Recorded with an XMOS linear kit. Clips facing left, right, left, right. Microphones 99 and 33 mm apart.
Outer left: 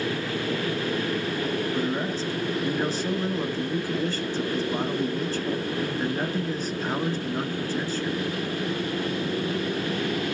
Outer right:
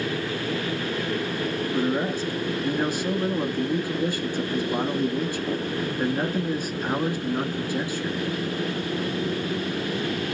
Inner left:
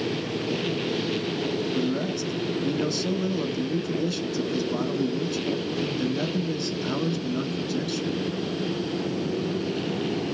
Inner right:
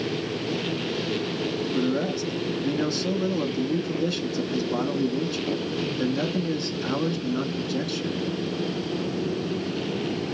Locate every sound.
1.7 s a man speaking: 15° right (ahead or behind), 1.2 m